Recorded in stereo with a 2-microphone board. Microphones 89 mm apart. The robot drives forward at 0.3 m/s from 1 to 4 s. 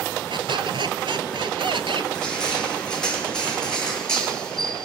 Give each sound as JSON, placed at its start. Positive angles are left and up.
{"t": 0.3, "sound": "a squeak", "side_deg": -70, "distance_m": 1.0}
{"t": 2.1, "sound": "crushing", "side_deg": 10, "distance_m": 5.5}